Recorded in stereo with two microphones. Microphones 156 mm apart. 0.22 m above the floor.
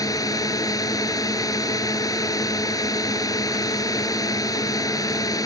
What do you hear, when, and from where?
0.0 s a drone: 25° left (ahead or behind)